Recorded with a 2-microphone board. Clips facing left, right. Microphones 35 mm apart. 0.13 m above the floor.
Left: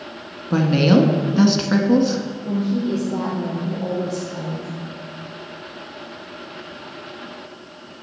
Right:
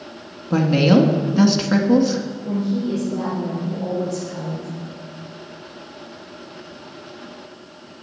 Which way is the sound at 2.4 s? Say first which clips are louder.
Left 1 dB; 65° left (ahead or behind).